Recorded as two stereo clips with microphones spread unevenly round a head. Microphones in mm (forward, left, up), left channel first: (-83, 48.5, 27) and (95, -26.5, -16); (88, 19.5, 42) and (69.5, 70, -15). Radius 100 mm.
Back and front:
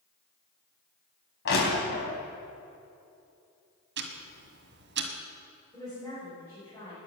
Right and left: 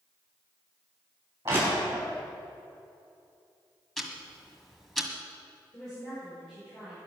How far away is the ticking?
About 1.7 m.